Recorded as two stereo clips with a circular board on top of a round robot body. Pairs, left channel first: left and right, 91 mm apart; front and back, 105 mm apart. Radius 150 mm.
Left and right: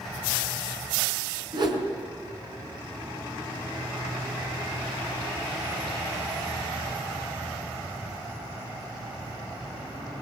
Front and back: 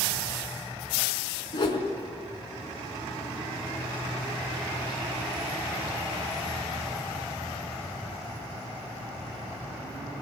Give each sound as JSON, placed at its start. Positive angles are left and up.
{"t": 1.5, "sound": "a whoosh", "azimuth_deg": -50, "distance_m": 3.5}